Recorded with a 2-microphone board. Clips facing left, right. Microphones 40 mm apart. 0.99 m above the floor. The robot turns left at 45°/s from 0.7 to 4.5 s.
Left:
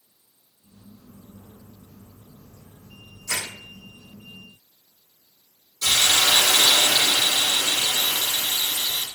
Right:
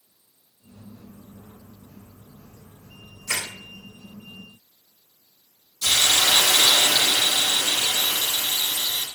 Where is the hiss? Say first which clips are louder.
Even; 70° left (ahead or behind), 0.8 m.